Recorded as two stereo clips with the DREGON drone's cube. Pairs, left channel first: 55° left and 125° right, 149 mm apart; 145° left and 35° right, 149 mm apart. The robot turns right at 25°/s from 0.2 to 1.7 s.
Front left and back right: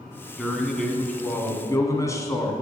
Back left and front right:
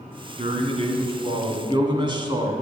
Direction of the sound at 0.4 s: 35° right.